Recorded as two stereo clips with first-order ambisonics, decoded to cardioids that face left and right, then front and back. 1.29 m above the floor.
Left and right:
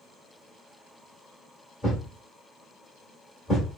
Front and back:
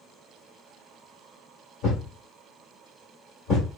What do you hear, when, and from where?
1.8 s a thud: 35° left, 1.2 m